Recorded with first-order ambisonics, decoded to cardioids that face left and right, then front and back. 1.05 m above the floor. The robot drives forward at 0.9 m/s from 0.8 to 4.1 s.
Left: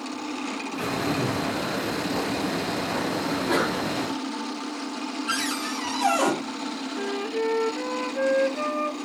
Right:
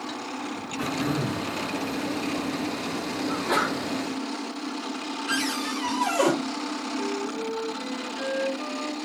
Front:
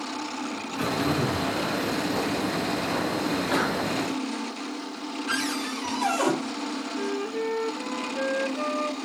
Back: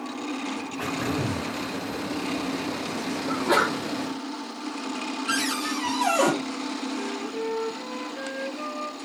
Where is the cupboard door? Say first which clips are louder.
Even, back 2 dB; 145° left, 2.5 m.